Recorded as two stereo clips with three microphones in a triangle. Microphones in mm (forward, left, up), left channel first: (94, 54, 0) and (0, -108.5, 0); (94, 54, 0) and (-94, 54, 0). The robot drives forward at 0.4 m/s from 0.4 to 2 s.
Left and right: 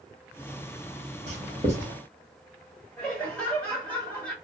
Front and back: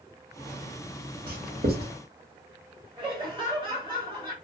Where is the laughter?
140° left, 1.7 m.